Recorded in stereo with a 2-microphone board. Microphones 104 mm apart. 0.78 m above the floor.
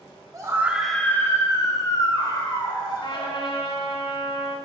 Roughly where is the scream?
Right.